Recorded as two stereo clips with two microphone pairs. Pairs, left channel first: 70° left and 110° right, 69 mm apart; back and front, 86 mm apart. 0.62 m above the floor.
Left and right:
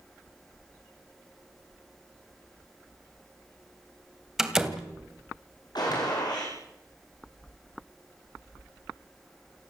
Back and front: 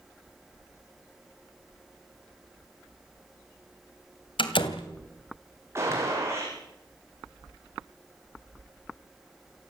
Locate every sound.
4.4 s a door slam: 165° left, 2.5 m
5.8 s a gunshot: 55° left, 9.5 m